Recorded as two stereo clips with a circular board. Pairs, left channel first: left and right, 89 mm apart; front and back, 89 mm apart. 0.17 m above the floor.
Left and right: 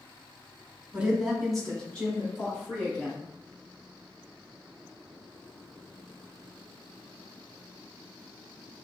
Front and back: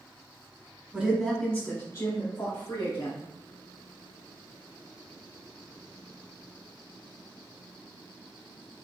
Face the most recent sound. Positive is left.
turn(degrees=30)